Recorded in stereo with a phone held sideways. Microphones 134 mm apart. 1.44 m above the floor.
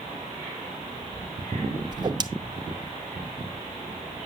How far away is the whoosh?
About 0.5 m.